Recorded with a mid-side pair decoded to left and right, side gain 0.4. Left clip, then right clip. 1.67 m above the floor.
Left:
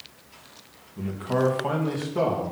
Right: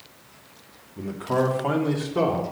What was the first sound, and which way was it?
A man speaking, 10° right.